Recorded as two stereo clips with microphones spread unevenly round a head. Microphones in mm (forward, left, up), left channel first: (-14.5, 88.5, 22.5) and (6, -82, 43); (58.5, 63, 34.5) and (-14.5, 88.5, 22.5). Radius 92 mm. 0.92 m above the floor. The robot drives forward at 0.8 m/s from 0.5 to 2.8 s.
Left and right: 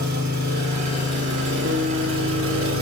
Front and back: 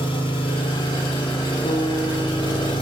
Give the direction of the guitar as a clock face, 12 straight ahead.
2 o'clock.